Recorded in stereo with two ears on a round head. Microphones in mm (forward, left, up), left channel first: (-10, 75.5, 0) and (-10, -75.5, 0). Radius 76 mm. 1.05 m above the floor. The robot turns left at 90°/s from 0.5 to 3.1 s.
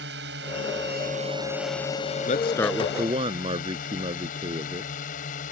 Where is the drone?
70° right (ahead or behind); by 5.5 s 45° left (ahead or behind).